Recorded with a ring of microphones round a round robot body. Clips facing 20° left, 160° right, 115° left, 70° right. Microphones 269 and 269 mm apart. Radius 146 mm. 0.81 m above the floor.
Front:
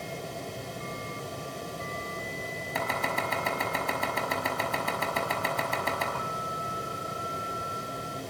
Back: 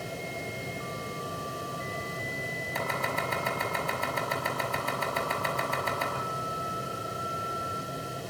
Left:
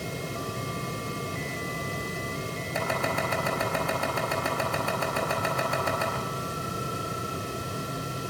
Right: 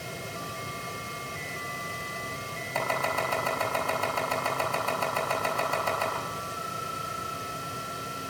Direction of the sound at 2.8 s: 40° left.